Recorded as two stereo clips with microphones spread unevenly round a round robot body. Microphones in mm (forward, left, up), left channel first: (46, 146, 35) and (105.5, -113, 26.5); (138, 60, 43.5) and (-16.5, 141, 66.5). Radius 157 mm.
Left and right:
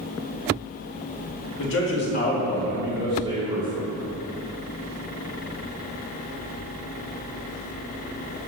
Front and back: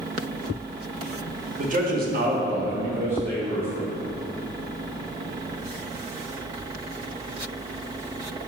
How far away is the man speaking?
About 0.8 m.